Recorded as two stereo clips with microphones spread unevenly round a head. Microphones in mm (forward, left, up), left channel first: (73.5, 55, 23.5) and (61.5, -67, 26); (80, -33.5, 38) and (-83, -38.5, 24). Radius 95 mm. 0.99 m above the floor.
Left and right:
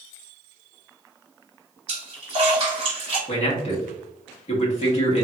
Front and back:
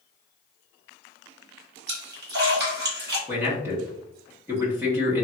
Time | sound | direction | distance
1.9 | a splash | 160° right | 1.3 m
3.3 | a man speaking | 110° left | 0.9 m